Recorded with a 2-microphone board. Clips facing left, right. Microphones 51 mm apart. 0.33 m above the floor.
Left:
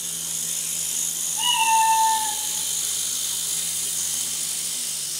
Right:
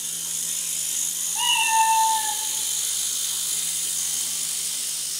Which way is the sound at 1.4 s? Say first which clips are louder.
Left 1 dB; 70° right (ahead or behind).